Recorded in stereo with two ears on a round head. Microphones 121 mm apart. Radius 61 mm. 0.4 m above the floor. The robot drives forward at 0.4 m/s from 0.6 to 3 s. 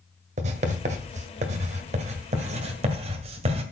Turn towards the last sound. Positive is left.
turn(degrees=-50)  # may be behind; listen again after turning